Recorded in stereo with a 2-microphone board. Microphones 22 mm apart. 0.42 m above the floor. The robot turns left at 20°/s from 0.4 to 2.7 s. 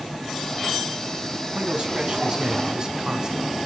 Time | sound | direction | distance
1.6 | a man speaking | 60° right (ahead or behind) | 4 m